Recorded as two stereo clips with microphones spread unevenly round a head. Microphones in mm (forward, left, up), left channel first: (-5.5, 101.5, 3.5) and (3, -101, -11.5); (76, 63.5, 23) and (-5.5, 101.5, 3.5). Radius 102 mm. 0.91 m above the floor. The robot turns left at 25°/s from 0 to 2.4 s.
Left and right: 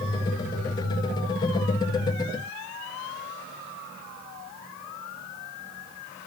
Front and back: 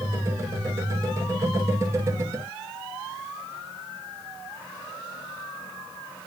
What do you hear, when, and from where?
Only background noise.